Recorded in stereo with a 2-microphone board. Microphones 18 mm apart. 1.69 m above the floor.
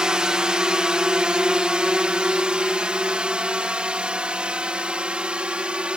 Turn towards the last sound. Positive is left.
turn(degrees=-75)  # may be behind; listen again after turning